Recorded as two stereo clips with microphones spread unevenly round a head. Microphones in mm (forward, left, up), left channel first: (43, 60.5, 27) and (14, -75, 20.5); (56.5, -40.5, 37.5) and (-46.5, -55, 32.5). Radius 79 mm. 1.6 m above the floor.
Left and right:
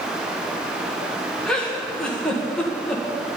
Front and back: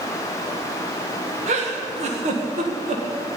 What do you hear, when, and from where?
1.5 s a giggle: 165° left, 1.7 m